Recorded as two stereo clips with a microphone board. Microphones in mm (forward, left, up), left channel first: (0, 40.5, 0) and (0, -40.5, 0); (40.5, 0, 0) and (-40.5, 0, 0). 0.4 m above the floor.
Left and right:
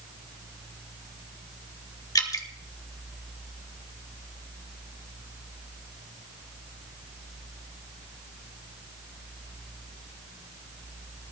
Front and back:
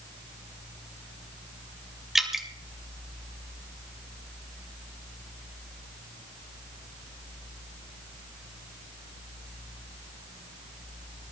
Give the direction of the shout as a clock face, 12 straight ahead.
No shout in this recording.